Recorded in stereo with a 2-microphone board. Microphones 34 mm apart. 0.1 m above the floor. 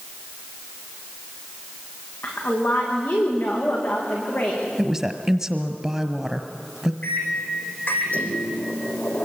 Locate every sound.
2.2 s a woman speaking: 75° left (ahead or behind), 9.5 m
4.8 s a woman speaking: 10° right (ahead or behind), 1.5 m
7.0 s a microwave: 55° left (ahead or behind), 3.5 m